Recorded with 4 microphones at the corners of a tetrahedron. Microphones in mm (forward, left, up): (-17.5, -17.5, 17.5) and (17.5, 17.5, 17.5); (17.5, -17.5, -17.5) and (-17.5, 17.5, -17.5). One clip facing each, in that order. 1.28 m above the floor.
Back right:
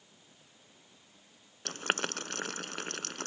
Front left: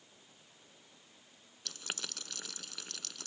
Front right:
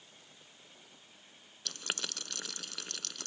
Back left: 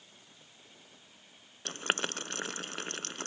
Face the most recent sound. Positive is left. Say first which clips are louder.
# back right 11 dB, back left 7 dB
turn(degrees=-170)